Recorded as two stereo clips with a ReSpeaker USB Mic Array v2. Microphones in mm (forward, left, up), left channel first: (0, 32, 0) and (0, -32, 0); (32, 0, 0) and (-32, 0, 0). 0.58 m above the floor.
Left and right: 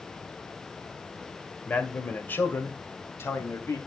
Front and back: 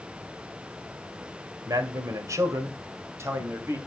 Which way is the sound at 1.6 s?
155° left.